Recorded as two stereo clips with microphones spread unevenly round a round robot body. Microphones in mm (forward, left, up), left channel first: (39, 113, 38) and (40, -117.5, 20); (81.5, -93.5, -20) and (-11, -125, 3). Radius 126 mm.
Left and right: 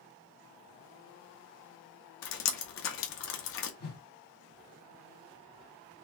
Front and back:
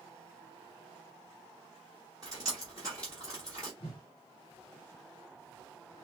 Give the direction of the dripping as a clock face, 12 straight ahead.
8 o'clock.